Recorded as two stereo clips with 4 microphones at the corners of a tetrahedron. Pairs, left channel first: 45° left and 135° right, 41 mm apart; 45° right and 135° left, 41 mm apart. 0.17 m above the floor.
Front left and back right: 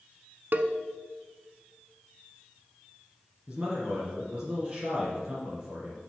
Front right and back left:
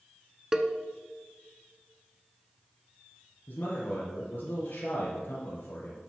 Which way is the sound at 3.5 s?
80° right.